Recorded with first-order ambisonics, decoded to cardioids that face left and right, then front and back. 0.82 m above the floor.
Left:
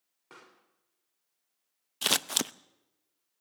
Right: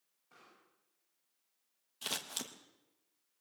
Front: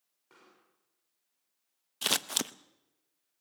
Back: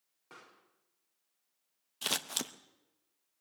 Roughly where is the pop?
Left.